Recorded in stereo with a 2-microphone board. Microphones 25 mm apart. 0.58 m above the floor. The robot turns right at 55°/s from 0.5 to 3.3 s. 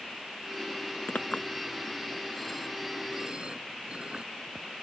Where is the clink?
80° left; by 4.2 s 40° right (ahead or behind).